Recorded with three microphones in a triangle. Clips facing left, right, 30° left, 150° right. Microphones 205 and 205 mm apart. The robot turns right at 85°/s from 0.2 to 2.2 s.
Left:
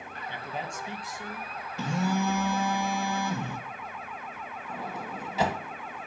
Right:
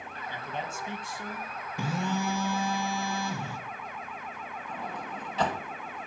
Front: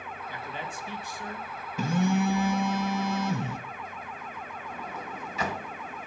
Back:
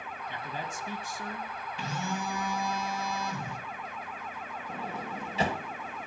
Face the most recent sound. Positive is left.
turn(degrees=170)